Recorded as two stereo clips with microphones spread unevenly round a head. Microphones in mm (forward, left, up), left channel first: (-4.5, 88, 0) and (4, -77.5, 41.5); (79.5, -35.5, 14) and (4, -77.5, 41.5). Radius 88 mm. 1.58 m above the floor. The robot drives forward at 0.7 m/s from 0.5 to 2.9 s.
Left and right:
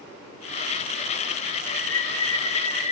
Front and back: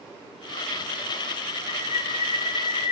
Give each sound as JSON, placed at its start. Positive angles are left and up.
{"t": 1.7, "sound": "a bird", "azimuth_deg": 20, "distance_m": 2.5}